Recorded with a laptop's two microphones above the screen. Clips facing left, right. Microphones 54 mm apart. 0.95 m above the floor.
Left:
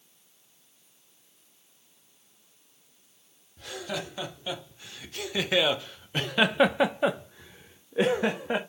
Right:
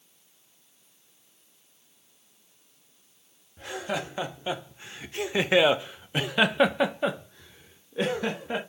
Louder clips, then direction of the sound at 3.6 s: Right 3 dB; 30° right (ahead or behind).